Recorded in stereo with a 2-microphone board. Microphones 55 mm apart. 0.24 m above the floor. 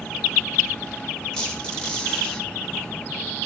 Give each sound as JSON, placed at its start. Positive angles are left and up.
{"t": 1.3, "sound": "a squeak", "side_deg": 15, "distance_m": 2.0}